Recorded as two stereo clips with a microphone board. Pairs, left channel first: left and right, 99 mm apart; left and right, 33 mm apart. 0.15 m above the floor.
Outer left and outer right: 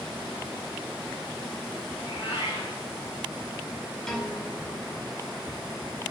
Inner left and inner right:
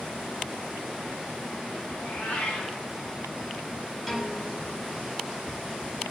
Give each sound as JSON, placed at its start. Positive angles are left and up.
{"t": 1.9, "sound": "a cat meowing", "side_deg": 55, "distance_m": 4.0}
{"t": 4.1, "sound": "a piano", "side_deg": 5, "distance_m": 4.0}